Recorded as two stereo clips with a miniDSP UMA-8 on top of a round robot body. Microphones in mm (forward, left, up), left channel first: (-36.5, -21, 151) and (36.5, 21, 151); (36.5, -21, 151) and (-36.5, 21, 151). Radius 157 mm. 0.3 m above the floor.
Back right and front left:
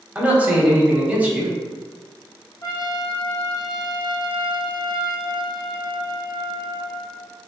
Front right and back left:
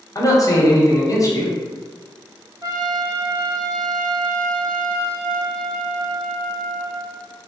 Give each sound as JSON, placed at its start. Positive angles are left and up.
{"t": 0.1, "sound": "a man speaking", "azimuth_deg": -35, "distance_m": 1.1}
{"t": 2.6, "sound": "a trumpet", "azimuth_deg": 180, "distance_m": 1.4}